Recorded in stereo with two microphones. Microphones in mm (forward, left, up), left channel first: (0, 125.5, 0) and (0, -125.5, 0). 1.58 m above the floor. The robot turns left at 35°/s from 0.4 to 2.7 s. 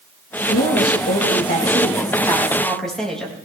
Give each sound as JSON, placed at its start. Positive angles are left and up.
{"t": 0.5, "sound": "a woman speaking", "azimuth_deg": 80, "distance_m": 2.5}